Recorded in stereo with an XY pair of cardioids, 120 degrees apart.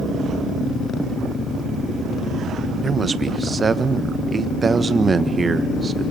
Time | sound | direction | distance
2.8 | a man speaking | 25° right | 1.3 m